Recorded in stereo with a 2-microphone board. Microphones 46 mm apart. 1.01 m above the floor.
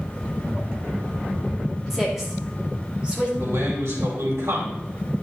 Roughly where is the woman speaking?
Centre.